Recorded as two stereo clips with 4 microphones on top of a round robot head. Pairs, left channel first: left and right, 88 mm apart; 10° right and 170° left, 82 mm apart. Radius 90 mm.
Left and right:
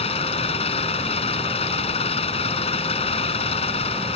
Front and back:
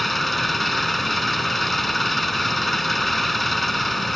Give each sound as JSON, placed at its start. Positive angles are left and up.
{"t": 0.0, "sound": "an engine running", "azimuth_deg": 80}